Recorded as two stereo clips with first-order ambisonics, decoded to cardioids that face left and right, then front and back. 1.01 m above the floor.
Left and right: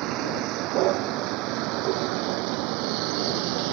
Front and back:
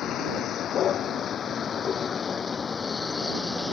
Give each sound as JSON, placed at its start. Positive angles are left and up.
{"t": 0.0, "sound": "a vehicle", "azimuth_deg": -55}